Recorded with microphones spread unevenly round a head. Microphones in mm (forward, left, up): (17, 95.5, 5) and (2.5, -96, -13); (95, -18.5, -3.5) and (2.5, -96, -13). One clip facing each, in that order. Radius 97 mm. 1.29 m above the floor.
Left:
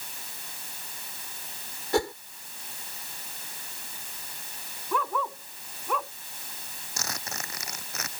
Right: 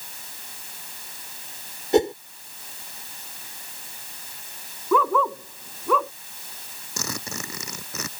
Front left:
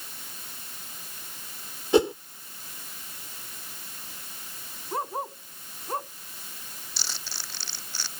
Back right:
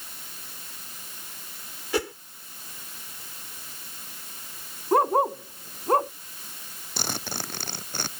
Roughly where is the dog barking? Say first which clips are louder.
Right 9 dB, back right 11 dB; behind right.